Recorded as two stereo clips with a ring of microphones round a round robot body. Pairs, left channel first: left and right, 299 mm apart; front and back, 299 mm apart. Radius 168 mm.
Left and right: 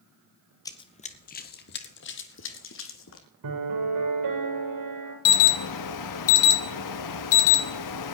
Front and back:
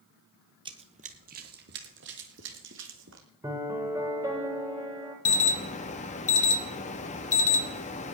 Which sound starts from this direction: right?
A piano, at 3.4 s.